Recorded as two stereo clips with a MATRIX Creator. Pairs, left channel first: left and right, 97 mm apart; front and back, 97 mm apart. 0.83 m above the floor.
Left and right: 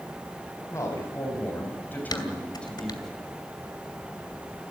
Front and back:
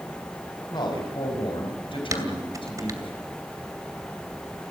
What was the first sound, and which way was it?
A man speaking, 35° left.